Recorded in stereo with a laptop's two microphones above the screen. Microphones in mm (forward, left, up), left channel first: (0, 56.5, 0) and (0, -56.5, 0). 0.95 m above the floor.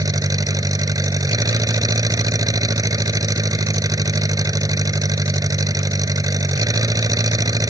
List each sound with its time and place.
0.0 s an engine running: 35° right (ahead or behind)